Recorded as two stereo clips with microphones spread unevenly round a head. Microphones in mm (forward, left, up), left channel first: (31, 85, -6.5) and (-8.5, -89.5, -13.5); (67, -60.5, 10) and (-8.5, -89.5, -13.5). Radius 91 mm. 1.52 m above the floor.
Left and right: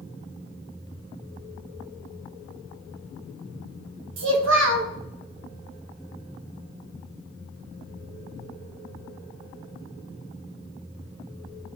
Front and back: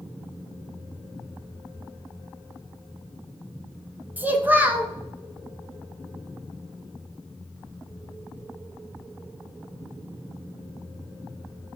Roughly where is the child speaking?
Right.